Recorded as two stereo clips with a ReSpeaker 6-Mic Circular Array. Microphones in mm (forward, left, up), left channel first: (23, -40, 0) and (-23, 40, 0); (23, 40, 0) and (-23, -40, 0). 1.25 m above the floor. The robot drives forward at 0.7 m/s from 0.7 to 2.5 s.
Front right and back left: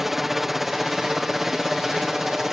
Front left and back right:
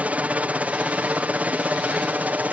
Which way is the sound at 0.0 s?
160° right.